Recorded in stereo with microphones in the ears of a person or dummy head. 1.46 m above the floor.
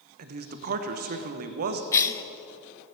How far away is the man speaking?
About 0.9 m.